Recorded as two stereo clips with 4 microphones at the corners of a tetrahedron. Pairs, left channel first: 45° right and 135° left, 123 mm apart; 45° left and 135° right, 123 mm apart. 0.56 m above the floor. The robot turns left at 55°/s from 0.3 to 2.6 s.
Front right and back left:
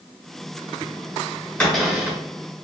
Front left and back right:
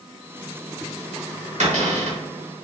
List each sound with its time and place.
1.6 s a cupboard door: 125° right, 1.3 m; by 2.2 s 155° right, 1.3 m